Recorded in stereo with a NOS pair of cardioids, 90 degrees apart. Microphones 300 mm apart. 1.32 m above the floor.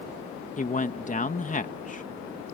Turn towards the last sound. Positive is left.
turn(degrees=25)